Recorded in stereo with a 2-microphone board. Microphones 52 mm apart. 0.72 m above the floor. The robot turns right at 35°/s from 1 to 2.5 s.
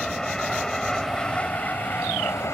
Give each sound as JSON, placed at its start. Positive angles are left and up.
{"t": 0.0, "sound": "an aircraft", "side_deg": 10}